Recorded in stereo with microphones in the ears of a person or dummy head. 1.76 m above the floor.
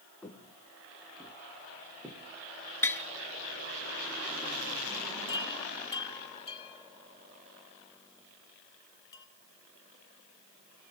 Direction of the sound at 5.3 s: 25° left (ahead or behind).